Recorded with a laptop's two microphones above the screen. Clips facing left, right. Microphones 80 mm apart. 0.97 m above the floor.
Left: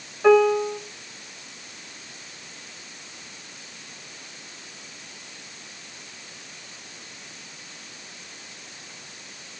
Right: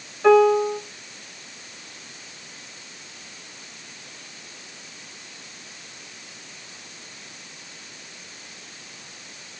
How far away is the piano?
About 1.4 m.